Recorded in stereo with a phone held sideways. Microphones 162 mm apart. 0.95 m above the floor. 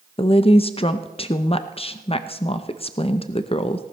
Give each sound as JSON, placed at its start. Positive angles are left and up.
{"t": 0.2, "sound": "a woman speaking", "side_deg": 35, "distance_m": 0.5}